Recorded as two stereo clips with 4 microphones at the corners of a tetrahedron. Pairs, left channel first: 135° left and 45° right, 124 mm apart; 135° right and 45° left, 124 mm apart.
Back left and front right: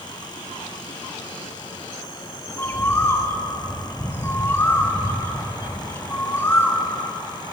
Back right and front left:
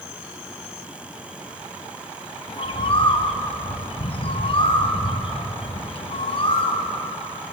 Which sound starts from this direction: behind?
A bird, at 2.5 s.